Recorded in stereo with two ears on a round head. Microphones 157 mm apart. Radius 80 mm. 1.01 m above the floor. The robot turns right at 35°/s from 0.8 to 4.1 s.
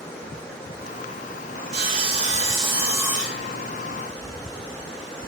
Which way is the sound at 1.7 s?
60° right.